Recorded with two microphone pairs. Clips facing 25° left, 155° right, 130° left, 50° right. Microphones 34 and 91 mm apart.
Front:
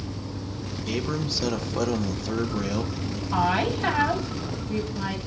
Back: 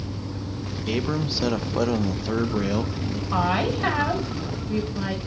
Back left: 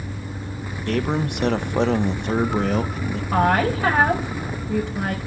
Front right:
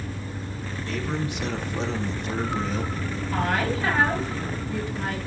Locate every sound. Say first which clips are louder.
0.9 s a man speaking: back 3 dB, back left 7 dB; 135° left, 1.0 m
3.3 s a woman speaking: even, back left 7 dB; 140° left, 5.5 m